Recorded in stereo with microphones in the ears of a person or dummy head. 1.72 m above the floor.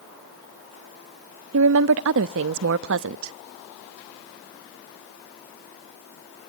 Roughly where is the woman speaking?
Right.